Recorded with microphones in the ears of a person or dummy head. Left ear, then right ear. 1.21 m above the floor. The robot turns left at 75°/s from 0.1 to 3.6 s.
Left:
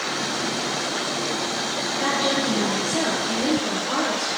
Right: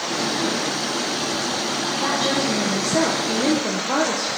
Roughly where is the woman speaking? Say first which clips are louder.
Even; ahead left.